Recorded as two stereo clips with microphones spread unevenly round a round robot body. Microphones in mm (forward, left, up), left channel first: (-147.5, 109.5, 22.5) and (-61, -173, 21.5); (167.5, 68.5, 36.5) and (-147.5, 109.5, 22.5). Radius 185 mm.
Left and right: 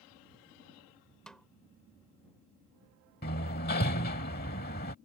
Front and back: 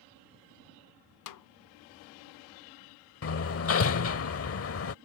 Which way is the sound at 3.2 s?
40° left.